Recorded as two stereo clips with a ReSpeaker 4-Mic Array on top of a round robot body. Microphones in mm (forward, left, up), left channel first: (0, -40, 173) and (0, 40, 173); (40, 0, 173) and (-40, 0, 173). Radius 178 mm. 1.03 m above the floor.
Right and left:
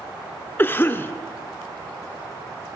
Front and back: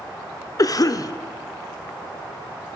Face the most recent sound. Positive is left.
turn(degrees=-30)